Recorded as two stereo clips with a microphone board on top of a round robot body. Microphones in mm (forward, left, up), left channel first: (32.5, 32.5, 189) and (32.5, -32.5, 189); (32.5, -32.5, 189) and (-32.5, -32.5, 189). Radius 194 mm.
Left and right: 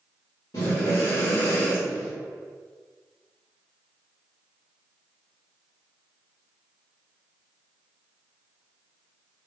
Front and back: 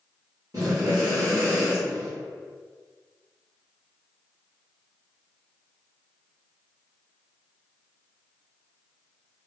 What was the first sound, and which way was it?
Breathing, 130° left.